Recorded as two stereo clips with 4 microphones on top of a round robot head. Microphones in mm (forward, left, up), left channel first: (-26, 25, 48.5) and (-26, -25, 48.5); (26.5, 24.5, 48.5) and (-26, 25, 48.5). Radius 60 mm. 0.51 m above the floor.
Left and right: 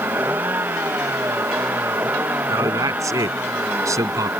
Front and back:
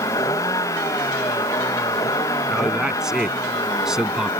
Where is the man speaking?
100° right.